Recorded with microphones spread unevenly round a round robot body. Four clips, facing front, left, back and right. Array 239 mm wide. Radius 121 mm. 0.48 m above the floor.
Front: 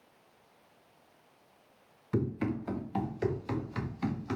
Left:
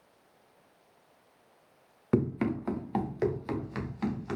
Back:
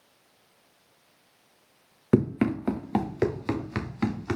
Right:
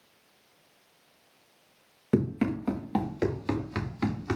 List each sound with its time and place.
2.1 s running footsteps: 175° right, 1.8 m; by 4.4 s 145° right, 3 m